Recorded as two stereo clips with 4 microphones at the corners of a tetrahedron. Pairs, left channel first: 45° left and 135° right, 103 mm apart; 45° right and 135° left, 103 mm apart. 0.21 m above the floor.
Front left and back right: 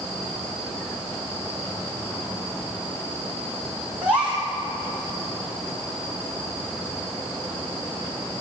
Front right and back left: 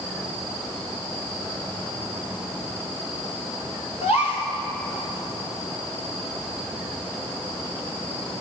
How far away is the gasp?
About 6.5 m.